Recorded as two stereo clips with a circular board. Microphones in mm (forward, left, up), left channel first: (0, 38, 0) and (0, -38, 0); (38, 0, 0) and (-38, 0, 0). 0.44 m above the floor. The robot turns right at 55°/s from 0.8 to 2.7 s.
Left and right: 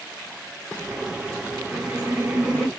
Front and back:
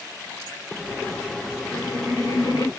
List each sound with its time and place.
1.7 s laughter: 45° right, 1.7 m; by 2.7 s 10° left, 1.7 m